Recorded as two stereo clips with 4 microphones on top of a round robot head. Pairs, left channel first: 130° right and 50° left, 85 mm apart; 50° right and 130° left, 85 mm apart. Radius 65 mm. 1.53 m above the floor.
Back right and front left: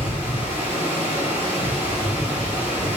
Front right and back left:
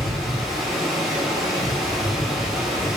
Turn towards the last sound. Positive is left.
turn(degrees=-140)